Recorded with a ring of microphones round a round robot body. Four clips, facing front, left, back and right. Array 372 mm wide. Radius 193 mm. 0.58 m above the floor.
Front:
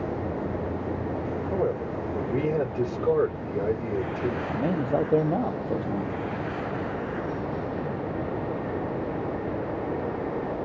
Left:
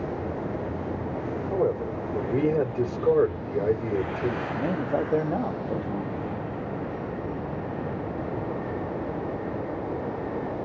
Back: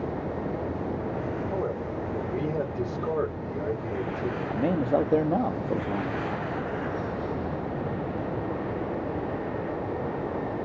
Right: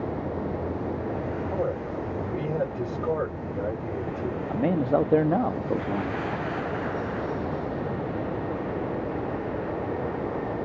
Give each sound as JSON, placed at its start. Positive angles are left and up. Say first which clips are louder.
{"t": 1.5, "sound": "a man speaking", "louder": "left 6 dB, front 3 dB", "azimuth_deg": 80, "distance_m": 3.5}
{"t": 4.5, "sound": "a man speaking", "louder": "right 3 dB, back 3 dB", "azimuth_deg": -105, "distance_m": 0.7}